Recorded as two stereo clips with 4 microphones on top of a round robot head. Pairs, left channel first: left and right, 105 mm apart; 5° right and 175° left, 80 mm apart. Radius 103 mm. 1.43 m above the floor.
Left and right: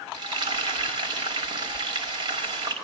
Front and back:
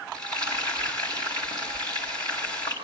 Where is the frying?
135° right, 5 m.